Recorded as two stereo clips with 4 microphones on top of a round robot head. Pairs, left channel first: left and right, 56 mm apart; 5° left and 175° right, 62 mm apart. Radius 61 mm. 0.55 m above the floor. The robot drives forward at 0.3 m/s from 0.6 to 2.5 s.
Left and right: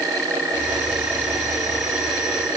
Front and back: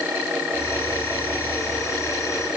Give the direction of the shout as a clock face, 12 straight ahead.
I don't hear a shout.